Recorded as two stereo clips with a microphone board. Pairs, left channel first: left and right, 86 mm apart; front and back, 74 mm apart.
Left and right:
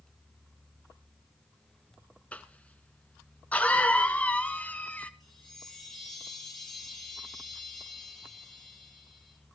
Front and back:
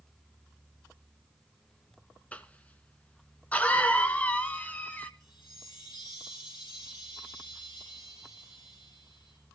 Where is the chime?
Straight ahead, 5.5 m.